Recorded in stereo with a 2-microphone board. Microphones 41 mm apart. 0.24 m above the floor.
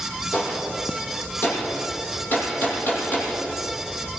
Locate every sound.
0.3 s a gunshot: 45° left (ahead or behind), 7.5 m